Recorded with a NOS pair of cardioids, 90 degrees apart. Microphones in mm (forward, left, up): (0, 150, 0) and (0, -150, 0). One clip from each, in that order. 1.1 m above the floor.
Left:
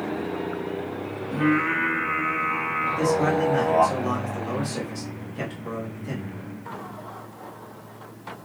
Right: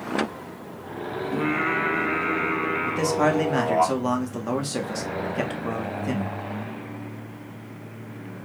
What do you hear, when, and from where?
1.3 s singing: 5° right, 1.6 m
2.9 s a man speaking: 50° right, 1.5 m